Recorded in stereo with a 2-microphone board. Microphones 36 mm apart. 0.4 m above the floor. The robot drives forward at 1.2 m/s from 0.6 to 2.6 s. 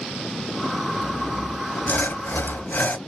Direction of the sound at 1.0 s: 25° left (ahead or behind).